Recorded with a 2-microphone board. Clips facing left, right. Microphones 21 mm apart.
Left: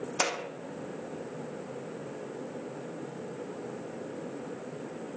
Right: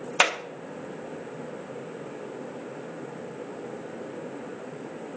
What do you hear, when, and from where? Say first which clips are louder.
0.2 s a clap: right 8 dB; 50° right (ahead or behind), 0.7 m